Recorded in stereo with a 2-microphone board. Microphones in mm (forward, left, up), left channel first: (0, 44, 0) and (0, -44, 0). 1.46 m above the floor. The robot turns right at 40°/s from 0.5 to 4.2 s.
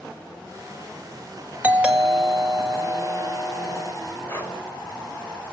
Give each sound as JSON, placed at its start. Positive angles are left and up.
{"t": 1.6, "sound": "a doorbell", "azimuth_deg": -20, "distance_m": 1.9}
{"t": 4.3, "sound": "breathing", "side_deg": 25, "distance_m": 3.5}